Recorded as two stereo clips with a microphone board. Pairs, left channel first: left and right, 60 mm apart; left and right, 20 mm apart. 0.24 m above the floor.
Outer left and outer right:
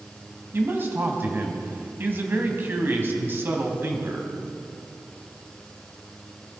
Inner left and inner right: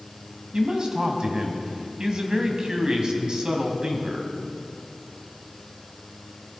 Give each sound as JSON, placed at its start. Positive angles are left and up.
{"t": 0.5, "sound": "a man speaking", "side_deg": -40, "distance_m": 1.6}